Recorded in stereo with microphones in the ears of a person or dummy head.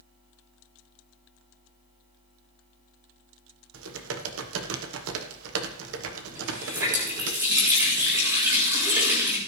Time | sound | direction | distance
3.7 | typing on a keyboard | 75° right (ahead or behind) | 1.1 m
6.3 | a running tap | 15° right (ahead or behind) | 4 m